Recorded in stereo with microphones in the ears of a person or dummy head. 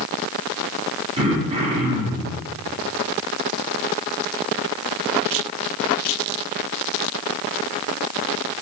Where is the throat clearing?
30° right (ahead or behind), 2 m.